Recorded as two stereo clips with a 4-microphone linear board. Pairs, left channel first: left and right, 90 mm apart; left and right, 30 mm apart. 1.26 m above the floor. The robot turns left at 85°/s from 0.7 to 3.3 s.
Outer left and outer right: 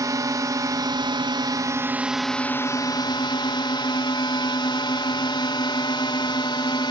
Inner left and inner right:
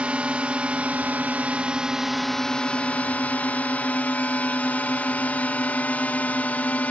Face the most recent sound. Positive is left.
turn(degrees=90)